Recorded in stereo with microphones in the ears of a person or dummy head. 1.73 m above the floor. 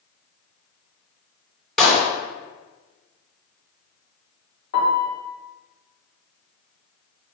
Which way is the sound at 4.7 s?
65° left (ahead or behind).